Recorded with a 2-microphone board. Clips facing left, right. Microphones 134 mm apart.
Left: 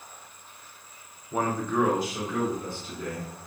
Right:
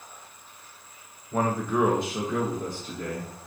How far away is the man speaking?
About 0.5 m.